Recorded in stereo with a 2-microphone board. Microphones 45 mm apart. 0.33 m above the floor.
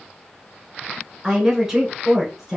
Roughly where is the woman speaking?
Centre.